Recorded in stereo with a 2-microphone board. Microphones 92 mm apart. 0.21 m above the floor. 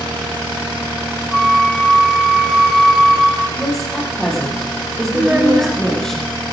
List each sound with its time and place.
1.3 s a flute: 5° right (ahead or behind), 2.5 m
3.6 s a woman speaking: 5° left (ahead or behind), 7.5 m
5.1 s a child speaking: 15° right (ahead or behind), 1.8 m